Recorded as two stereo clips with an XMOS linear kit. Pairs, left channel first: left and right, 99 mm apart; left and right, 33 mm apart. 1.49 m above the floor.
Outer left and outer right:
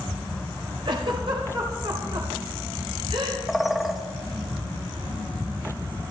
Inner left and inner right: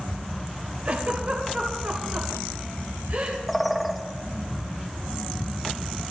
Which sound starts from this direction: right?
A giggle, at 0.8 s.